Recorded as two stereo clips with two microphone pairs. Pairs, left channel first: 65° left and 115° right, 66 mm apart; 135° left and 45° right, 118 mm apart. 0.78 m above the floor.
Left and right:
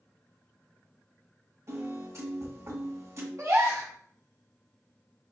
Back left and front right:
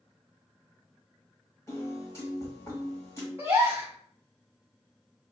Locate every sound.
1.7 s a piano: 155° right, 1.5 m
3.4 s a gasp: 105° right, 1.2 m